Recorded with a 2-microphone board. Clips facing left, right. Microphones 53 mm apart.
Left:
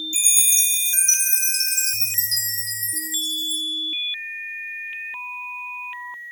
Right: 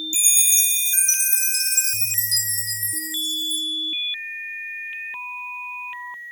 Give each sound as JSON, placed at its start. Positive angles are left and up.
{"t": 0.1, "sound": "a chime", "side_deg": 50, "distance_m": 1.6}